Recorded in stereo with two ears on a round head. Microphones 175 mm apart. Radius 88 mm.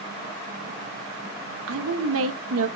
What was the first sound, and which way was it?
A woman speaking, 75° right (ahead or behind).